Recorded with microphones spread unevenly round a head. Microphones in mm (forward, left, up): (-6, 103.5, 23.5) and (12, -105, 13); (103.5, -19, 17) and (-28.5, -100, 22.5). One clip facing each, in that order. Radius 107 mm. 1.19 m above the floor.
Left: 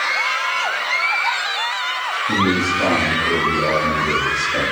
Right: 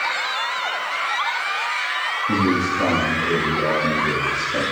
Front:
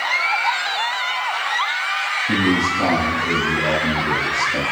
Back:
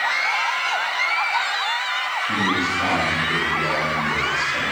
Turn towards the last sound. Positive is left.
turn(degrees=-10)